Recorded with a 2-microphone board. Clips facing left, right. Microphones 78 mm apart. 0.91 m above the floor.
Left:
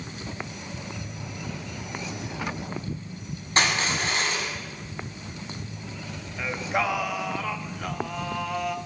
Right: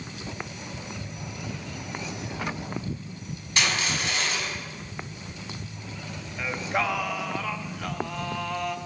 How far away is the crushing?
About 6 m.